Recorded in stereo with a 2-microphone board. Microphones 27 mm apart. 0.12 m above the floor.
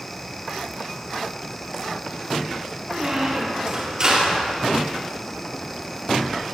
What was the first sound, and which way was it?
A squeak, 35° right (ahead or behind).